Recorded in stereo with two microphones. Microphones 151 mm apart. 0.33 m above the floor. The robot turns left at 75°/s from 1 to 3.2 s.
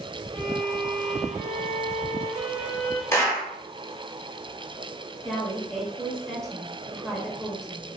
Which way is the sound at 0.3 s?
50° right.